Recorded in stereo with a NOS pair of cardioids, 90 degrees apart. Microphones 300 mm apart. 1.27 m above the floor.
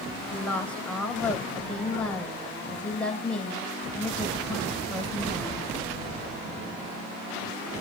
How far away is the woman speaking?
About 6 m.